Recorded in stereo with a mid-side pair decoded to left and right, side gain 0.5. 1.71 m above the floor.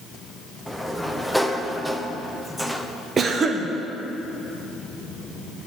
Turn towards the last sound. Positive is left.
turn(degrees=-40)